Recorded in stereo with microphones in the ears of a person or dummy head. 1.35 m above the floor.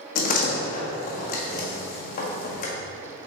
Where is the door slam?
45° left (ahead or behind), 1.5 m.